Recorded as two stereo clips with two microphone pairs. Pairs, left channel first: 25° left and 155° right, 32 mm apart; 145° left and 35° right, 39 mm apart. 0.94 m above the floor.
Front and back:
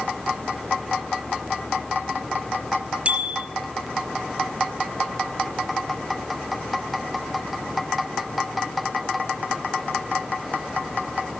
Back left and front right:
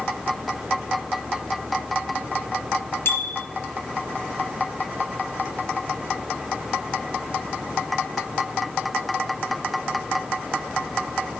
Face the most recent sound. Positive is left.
turn(degrees=155)